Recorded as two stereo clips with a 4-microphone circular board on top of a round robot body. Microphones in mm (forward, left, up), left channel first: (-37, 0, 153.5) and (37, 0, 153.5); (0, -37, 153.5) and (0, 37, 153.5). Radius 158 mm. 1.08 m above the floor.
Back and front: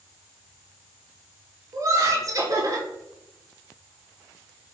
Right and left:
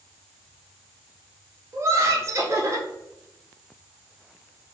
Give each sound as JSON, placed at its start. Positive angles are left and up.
{"t": 1.7, "sound": "laughter", "azimuth_deg": 40, "distance_m": 1.1}